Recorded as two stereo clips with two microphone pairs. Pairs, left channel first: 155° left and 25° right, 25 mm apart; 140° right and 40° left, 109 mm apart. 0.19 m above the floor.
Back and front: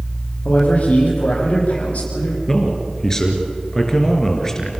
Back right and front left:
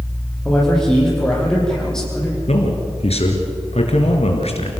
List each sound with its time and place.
0.5 s a man speaking: 135° left, 7 m
2.5 s a man speaking: 140° right, 3.5 m